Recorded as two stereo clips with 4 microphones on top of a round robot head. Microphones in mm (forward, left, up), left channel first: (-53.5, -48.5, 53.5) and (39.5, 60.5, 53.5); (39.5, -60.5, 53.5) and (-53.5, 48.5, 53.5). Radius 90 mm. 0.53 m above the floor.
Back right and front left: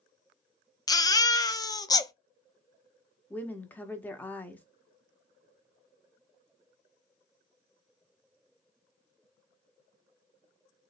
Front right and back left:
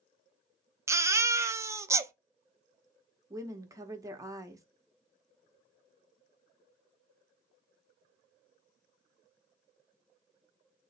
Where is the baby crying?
175° right, 0.5 m.